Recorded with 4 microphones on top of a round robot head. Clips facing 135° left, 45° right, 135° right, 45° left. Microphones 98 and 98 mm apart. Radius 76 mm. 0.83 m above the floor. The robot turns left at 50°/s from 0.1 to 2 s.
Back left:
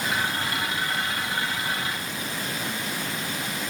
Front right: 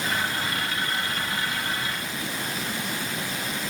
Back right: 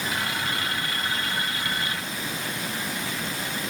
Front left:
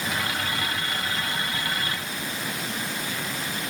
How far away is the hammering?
No hammering in this recording.